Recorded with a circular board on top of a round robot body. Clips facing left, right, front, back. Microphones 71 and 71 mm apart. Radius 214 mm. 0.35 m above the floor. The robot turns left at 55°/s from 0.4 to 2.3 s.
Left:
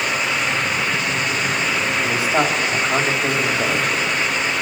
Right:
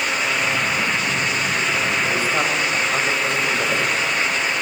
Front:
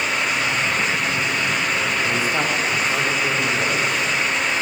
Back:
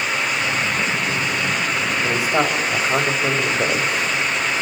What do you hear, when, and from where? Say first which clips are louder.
2.0 s a man speaking: left 2 dB, back 2 dB; straight behind, 3.5 m; by 3.9 s 165° left, 3.5 m